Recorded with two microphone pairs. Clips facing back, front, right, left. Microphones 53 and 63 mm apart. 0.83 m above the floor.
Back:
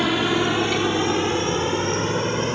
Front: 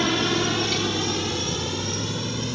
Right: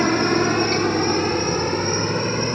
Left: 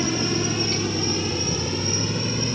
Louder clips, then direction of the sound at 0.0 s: Back 3 dB, right 6 dB; 100° right.